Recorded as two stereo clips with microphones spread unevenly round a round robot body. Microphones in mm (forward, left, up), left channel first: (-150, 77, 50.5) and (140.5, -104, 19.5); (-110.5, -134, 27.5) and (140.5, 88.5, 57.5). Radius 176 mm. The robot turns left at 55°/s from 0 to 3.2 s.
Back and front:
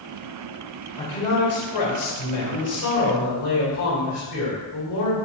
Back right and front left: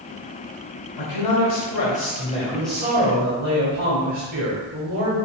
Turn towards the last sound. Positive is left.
turn(degrees=105)